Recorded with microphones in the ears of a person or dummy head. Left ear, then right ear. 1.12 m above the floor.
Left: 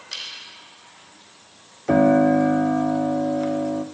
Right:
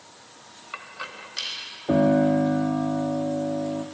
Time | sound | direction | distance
1.9 | a piano | 45° left (ahead or behind) | 0.5 m